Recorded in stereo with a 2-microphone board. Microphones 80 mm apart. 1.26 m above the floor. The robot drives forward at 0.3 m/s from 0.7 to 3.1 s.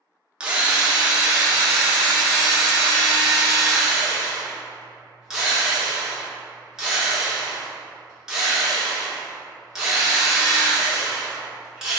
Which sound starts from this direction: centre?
A drill, at 0.4 s.